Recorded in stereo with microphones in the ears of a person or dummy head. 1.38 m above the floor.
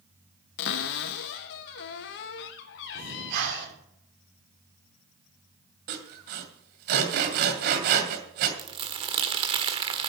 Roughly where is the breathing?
Right.